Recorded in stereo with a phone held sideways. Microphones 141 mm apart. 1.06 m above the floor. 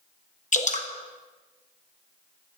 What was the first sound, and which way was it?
Dripping, 55° left (ahead or behind).